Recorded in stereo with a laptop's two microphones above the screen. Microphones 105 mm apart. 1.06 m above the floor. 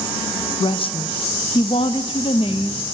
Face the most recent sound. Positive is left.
turn(degrees=55)  # may be behind; listen again after turning